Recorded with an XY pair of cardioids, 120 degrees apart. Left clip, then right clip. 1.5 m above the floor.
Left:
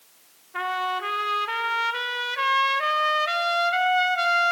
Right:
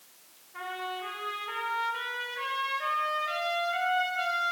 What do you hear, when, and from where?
0.5 s a trumpet: 60° left, 1.0 m